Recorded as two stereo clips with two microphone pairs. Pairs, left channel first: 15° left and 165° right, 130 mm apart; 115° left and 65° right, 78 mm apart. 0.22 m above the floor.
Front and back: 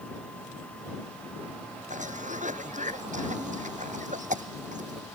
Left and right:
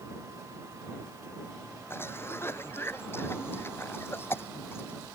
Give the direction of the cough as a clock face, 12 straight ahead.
6 o'clock.